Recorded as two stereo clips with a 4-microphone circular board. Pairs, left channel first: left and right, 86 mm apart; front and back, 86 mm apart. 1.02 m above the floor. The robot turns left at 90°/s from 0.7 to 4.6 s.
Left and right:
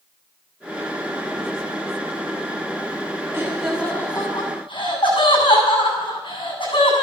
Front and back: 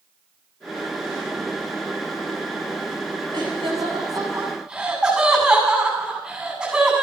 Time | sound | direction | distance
3.3 | laughter | 150° right | 7.5 m